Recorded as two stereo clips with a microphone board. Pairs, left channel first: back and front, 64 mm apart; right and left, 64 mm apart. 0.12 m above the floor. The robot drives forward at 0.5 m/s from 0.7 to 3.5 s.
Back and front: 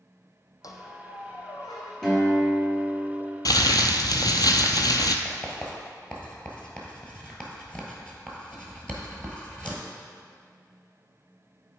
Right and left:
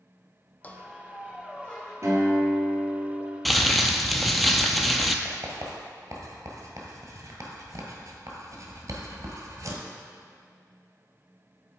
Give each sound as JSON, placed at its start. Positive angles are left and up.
{"t": 0.6, "sound": "a squeak", "azimuth_deg": -155, "distance_m": 0.7}
{"t": 2.0, "sound": "a guitar", "azimuth_deg": 95, "distance_m": 2.0}
{"t": 3.5, "sound": "crumpling", "azimuth_deg": 180, "distance_m": 0.5}
{"t": 5.2, "sound": "writing", "azimuth_deg": 105, "distance_m": 1.4}